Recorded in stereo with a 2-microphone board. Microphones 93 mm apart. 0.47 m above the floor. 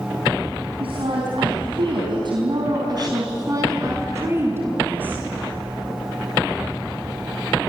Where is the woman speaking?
75° right (ahead or behind), 4.5 m; by 5.3 s 20° right (ahead or behind), 6 m.